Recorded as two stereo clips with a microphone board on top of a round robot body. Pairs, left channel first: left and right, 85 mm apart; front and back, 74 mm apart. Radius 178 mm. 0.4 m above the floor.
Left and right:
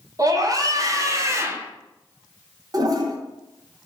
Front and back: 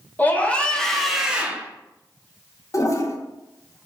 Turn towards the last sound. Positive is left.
turn(degrees=-45)